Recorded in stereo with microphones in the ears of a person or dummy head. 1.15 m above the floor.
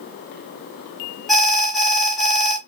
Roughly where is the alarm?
Centre.